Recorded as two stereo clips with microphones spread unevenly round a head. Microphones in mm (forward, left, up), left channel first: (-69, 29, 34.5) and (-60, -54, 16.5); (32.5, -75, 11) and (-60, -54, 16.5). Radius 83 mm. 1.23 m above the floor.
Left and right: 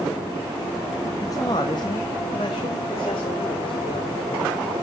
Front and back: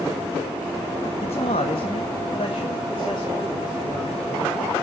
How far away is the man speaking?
About 1.3 m.